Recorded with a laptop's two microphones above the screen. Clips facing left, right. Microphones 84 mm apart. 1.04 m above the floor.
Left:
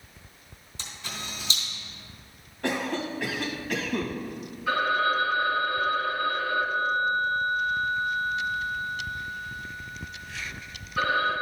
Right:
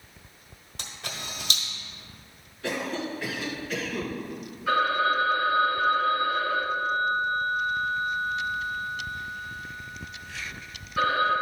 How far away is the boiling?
I don't hear boiling.